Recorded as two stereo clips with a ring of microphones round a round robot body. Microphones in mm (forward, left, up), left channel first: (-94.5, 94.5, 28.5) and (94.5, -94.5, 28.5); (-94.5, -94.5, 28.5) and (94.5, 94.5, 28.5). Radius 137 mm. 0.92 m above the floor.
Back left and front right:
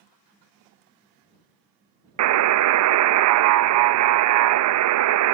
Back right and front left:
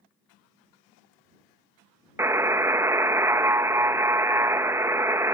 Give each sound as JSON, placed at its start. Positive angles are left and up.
{"t": 2.2, "sound": "a buzzer", "azimuth_deg": -35}